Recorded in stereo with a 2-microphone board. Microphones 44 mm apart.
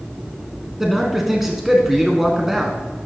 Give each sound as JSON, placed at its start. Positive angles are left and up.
{"t": 0.8, "sound": "a man speaking", "side_deg": -5, "distance_m": 1.1}